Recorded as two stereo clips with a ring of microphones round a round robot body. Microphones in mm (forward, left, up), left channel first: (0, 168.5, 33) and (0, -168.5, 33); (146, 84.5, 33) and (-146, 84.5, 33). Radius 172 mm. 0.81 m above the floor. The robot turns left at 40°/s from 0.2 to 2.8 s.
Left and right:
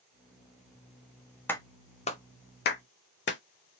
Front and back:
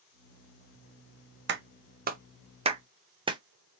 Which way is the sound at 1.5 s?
170° left.